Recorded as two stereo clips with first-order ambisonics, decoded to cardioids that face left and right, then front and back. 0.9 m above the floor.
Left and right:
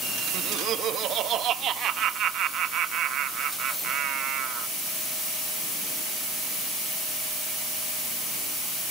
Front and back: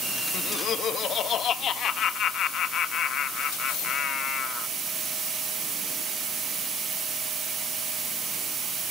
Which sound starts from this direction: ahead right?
Laughter, at 0.3 s.